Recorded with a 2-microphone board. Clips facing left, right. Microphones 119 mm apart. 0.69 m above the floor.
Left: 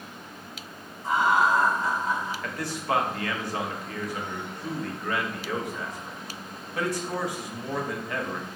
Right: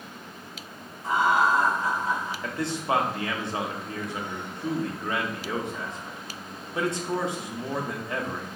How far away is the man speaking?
About 0.9 m.